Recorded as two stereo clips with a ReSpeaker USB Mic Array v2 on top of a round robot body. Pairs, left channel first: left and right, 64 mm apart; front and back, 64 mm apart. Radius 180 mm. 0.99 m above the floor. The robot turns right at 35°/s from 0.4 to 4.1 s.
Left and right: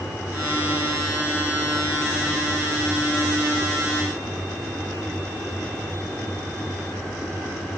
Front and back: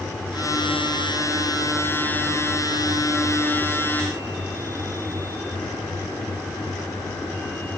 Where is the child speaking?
No child speaking in this recording.